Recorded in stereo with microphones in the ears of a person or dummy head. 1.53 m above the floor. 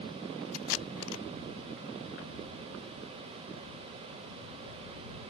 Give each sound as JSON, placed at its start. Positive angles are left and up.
{"t": 0.5, "sound": "tape being pulled", "side_deg": 75}